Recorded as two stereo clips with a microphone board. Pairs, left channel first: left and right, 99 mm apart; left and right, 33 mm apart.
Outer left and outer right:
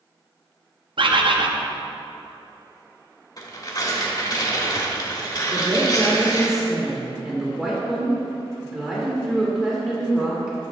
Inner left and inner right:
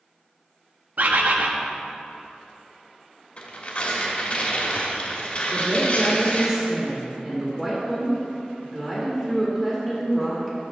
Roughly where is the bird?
Right.